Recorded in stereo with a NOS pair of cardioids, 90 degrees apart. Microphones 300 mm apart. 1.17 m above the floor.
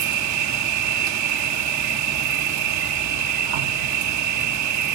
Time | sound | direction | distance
0.0 | an insect | 70° right | 0.9 m